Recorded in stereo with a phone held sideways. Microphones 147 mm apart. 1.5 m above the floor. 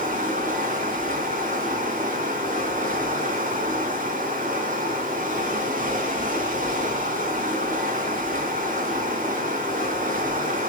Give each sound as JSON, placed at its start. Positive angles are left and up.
{"t": 0.0, "sound": "running water", "side_deg": -65, "distance_m": 3.5}